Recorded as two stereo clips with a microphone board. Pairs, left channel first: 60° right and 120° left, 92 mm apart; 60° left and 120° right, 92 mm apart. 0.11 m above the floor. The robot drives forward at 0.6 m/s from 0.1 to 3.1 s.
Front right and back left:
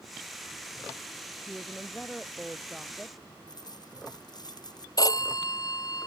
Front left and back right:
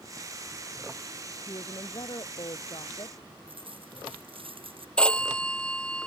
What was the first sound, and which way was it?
A woman speaking, 30° left.